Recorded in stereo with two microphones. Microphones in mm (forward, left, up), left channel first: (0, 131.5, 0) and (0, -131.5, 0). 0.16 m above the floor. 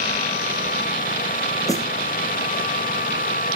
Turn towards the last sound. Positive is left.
turn(degrees=10)  # may be behind; listen again after turning